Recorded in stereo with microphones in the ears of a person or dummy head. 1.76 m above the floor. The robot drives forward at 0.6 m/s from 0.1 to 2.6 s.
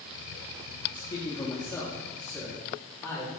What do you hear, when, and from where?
0.9 s a man speaking: 25° left (ahead or behind), 0.8 m; by 3.3 s 10° left (ahead or behind), 1.7 m